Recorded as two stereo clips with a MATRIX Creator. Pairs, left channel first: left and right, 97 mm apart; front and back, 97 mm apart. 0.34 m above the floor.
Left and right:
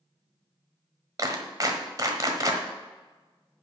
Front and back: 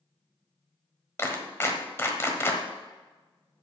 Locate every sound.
1.2 s a clap: 55° right, 1.3 m